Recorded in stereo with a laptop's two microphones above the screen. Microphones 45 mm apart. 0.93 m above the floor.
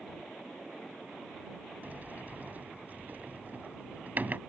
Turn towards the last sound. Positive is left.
turn(degrees=-40)  # may be behind; listen again after turning